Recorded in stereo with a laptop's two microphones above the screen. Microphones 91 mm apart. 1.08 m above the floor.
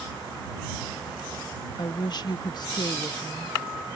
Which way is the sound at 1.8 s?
50° left (ahead or behind).